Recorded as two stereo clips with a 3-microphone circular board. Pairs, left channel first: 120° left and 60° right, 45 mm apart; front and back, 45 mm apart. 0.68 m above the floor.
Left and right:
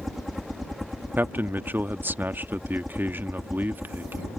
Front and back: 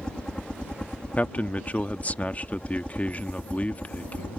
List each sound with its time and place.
0.0 s a helicopter: 30° left; by 4.4 s 15° left
1.2 s a man speaking: 45° right